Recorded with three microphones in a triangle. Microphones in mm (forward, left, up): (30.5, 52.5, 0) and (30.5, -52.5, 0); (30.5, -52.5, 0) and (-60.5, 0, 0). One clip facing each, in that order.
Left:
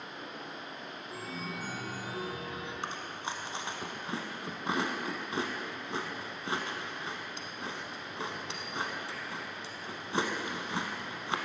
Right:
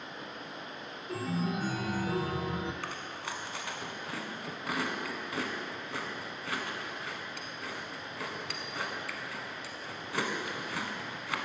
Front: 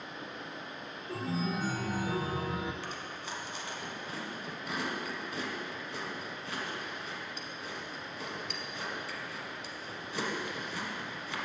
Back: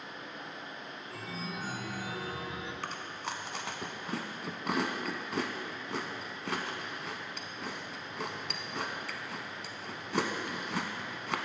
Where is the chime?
75° right, 0.5 m.